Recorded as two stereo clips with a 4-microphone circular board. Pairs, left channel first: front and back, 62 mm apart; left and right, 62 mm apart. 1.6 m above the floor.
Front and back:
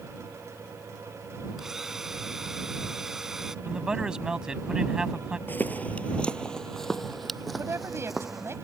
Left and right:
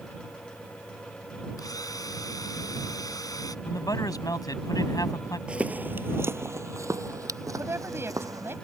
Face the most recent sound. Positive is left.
turn(degrees=-135)